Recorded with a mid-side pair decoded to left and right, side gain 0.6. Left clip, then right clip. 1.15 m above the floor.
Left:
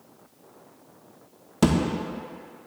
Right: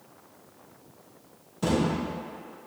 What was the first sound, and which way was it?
A thud, 65° left.